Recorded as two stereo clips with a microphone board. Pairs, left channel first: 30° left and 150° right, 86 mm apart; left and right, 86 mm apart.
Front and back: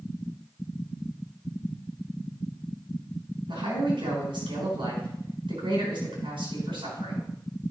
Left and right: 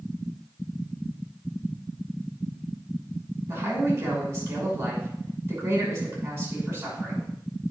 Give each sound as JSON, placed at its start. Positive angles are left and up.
{"t": 3.5, "sound": "a man speaking", "azimuth_deg": -155, "distance_m": 6.0}